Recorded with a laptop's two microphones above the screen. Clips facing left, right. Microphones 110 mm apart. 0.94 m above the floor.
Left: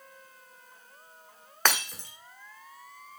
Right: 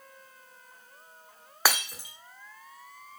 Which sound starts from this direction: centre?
Breaking glass, at 1.6 s.